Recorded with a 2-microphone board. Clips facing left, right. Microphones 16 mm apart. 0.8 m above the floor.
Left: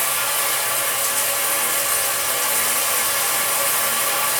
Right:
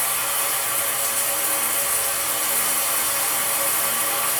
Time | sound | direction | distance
0.0 | running water | 75° left (ahead or behind) | 1.3 m